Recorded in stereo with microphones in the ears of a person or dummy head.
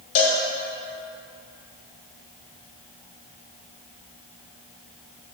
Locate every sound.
0.1 s a cowbell: 35° left (ahead or behind), 1.0 m